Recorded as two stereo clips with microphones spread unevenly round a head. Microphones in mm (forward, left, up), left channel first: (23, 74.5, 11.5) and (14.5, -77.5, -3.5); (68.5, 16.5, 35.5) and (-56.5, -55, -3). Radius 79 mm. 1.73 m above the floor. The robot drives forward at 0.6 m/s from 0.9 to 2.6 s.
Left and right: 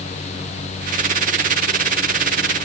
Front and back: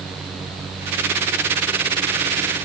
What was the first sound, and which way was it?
Only background noise.